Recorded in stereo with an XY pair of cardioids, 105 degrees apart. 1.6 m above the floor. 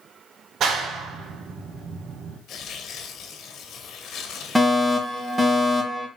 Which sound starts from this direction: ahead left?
Tearing paper, at 2.5 s.